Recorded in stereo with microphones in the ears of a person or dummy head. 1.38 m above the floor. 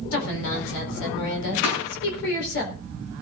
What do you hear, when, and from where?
0.1 s a woman speaking: 70° left (ahead or behind), 4.5 m
1.6 s a thud: 70° left (ahead or behind), 6.5 m